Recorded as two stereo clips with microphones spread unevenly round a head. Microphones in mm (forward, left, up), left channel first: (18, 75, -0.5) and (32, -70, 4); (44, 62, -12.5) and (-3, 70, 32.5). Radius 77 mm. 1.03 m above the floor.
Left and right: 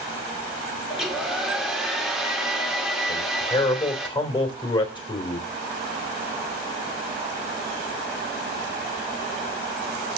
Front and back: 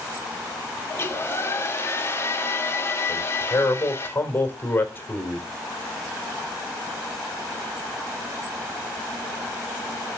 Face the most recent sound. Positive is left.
turn(degrees=35)